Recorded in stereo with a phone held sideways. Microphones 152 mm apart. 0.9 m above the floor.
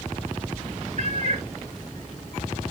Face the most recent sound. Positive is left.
turn(degrees=-55)  # may be behind; listen again after turning